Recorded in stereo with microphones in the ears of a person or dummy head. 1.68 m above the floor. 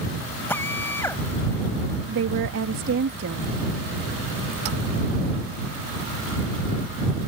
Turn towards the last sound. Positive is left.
turn(degrees=-75)  # may be behind; listen again after turning